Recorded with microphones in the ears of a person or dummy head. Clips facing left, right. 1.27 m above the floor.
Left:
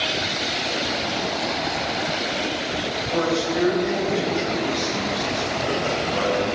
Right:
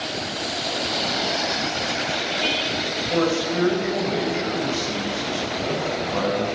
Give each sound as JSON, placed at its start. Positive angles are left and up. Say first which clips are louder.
{"t": 3.1, "sound": "a man speaking", "louder": "right 1 dB", "side_deg": -35, "distance_m": 5.5}